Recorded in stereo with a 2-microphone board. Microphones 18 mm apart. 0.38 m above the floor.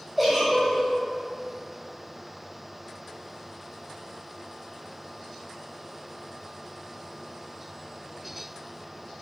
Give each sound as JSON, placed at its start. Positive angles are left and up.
{"t": 0.2, "sound": "a giggle", "side_deg": 5, "distance_m": 1.5}